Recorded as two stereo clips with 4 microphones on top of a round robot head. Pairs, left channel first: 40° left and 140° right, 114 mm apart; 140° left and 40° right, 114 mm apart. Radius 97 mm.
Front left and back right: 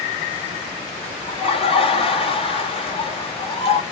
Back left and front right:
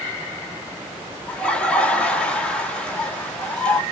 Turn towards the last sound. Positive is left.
turn(degrees=60)